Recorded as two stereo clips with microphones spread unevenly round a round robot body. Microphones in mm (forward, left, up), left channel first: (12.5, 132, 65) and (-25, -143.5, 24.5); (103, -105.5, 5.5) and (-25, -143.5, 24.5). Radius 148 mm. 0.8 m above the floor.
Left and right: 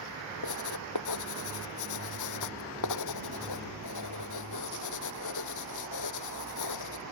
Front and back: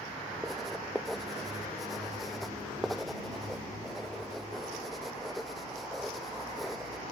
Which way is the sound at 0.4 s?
105° left.